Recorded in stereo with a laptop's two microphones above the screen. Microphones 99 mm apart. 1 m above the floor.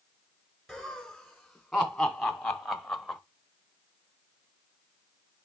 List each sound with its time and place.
0.7 s laughter: centre (ahead or behind), 4.5 m